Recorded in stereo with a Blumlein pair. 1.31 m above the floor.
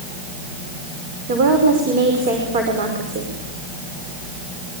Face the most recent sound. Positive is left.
turn(degrees=-45)